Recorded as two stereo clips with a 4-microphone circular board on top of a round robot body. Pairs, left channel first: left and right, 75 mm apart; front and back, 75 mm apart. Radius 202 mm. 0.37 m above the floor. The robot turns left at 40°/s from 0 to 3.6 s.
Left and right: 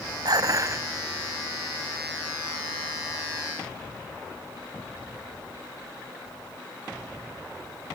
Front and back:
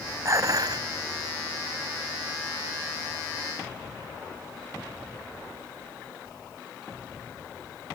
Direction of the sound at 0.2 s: 125° right.